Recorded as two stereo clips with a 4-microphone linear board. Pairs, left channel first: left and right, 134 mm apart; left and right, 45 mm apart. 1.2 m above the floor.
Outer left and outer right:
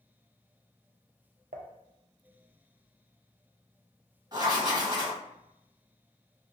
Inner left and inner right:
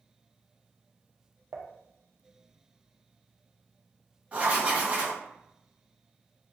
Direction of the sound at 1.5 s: 80° right.